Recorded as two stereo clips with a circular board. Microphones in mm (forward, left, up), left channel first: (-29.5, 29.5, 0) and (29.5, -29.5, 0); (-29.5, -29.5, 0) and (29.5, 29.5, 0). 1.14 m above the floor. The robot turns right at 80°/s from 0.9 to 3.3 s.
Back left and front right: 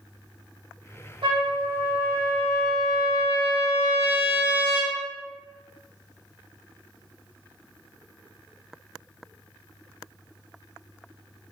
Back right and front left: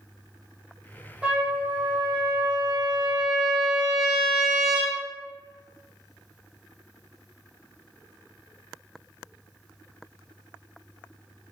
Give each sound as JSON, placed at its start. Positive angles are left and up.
{"t": 1.2, "sound": "a trumpet", "azimuth_deg": -30, "distance_m": 0.9}